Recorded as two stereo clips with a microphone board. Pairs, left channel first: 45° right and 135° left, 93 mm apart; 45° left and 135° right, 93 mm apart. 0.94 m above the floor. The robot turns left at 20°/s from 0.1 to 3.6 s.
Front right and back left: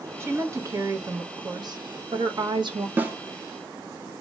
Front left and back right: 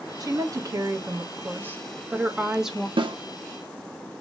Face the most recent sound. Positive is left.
turn(degrees=-170)